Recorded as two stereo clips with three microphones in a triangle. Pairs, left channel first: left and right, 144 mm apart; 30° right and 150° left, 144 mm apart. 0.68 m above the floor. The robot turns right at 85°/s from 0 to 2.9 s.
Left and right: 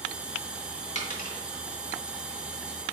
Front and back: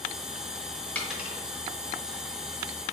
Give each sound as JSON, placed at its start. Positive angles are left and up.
{"t": 0.9, "sound": "a dropped coin", "azimuth_deg": 50, "distance_m": 1.1}